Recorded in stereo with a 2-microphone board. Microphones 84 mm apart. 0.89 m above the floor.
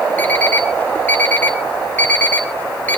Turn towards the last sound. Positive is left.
turn(degrees=20)  # may be behind; listen again after turning